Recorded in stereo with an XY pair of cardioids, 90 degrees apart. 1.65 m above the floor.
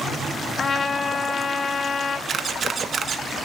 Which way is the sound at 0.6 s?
40° left.